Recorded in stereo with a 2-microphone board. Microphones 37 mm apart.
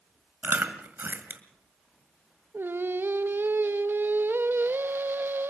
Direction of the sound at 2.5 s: 85° right.